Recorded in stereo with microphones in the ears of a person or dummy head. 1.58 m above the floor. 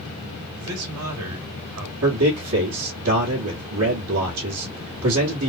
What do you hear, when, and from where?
0.6 s a man speaking: 75° right (ahead or behind), 1.7 m
2.0 s a man speaking: 80° right, 1.3 m